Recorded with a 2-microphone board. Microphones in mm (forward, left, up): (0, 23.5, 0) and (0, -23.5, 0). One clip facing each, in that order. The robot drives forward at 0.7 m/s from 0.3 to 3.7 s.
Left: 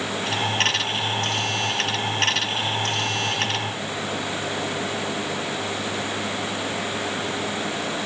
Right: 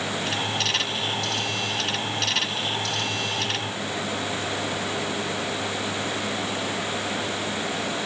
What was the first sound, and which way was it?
Only background noise.